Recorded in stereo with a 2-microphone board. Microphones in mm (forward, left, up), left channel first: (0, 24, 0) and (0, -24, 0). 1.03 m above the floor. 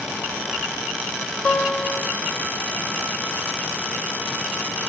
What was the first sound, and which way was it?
A guitar, 30° left (ahead or behind).